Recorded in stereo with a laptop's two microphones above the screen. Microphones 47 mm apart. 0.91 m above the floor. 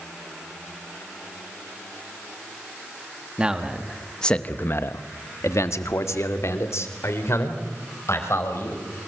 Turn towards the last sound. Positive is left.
turn(degrees=60)  # may be behind; listen again after turning